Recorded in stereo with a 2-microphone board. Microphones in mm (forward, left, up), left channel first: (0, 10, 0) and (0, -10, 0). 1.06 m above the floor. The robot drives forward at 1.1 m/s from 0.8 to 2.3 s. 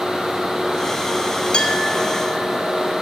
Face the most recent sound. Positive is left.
turn(degrees=50)  # may be behind; listen again after turning